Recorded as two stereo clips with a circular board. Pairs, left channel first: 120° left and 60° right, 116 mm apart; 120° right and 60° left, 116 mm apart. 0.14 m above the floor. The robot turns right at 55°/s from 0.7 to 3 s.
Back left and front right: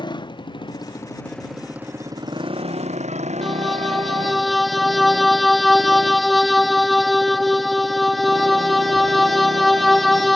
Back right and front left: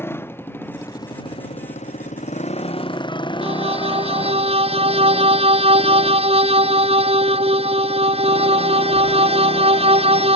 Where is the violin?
30° left.